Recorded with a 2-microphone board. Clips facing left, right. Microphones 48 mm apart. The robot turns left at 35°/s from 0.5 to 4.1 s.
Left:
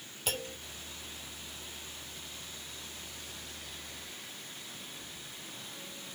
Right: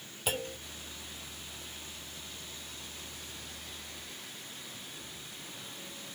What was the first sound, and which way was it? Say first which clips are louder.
A clunk: right 2 dB; 10° right (ahead or behind).